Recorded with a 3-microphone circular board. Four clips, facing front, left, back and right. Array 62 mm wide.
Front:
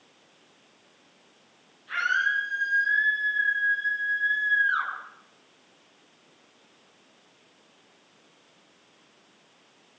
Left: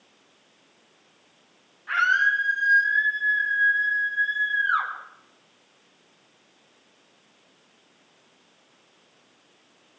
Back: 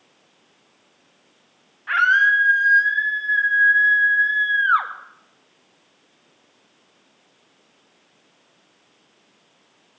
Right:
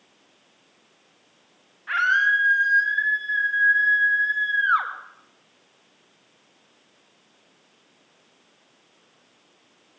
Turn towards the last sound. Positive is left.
turn(degrees=-155)